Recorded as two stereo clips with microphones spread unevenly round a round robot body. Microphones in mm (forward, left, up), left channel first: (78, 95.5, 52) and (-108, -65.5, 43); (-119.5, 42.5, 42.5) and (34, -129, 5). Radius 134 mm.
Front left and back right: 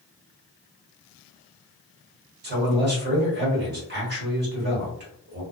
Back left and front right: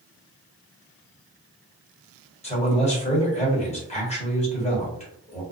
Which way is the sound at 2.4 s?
165° right.